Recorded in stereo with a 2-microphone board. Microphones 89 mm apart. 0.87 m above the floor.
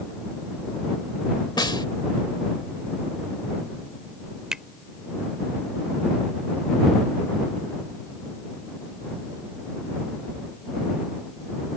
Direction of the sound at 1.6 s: 60° left (ahead or behind).